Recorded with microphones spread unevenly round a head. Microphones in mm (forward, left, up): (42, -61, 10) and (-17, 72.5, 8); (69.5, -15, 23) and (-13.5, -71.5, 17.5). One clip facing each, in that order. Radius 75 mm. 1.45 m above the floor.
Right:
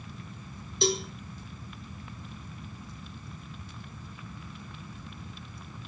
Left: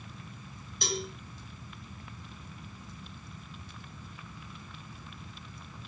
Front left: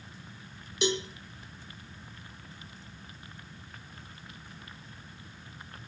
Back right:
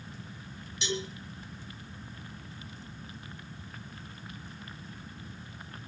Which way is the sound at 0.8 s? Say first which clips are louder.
Right 7 dB, front left 5 dB; straight ahead.